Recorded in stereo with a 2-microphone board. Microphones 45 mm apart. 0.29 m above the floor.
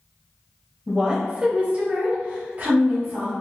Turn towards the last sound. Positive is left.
turn(degrees=-35)  # may be behind; listen again after turning